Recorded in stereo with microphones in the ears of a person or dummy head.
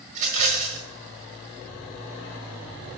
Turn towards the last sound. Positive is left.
turn(degrees=-45)  # may be behind; listen again after turning